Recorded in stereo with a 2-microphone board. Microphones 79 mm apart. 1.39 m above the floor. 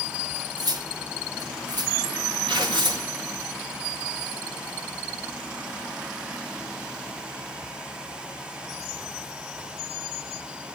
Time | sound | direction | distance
0.6 | cutlery clinking | 60° right (ahead or behind) | 1.3 m
2.5 | tearing paper | 75° right (ahead or behind) | 3 m